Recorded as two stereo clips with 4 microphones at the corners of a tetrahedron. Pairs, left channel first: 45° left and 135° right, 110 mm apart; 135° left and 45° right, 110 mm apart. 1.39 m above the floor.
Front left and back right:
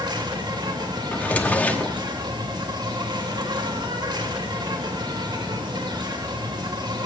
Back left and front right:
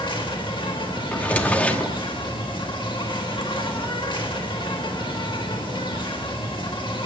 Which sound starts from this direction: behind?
An insect, at 0.0 s.